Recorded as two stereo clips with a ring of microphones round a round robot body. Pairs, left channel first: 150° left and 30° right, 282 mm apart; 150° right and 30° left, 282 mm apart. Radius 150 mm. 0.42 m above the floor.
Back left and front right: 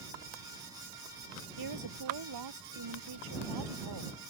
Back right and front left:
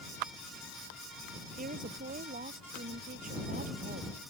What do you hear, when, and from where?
1.6 s a woman speaking: 30° right